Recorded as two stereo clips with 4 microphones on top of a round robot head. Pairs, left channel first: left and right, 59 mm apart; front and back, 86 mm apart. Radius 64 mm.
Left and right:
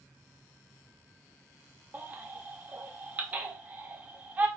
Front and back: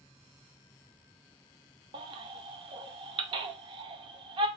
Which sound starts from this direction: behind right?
A baby crying, at 1.9 s.